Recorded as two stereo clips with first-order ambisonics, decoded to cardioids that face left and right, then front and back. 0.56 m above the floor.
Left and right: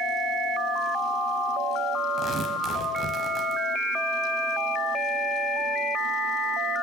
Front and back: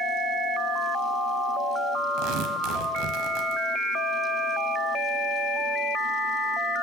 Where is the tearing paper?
155° right, 0.7 m.